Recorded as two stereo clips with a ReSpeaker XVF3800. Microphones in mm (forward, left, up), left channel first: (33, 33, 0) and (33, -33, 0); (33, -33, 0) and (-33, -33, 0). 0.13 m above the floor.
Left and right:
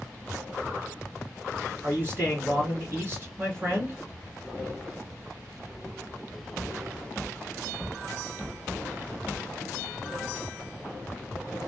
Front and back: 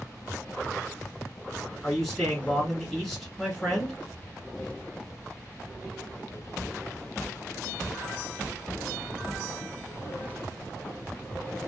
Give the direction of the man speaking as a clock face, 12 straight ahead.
3 o'clock.